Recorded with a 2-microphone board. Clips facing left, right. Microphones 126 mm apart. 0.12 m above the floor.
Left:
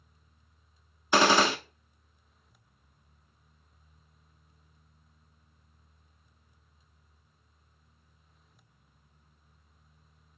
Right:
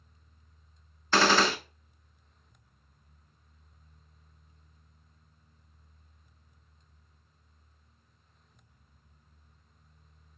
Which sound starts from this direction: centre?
A gunshot, at 1.1 s.